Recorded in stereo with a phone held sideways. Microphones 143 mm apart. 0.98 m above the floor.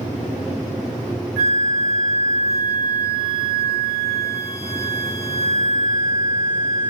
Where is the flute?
Centre (ahead or behind), 1.3 m.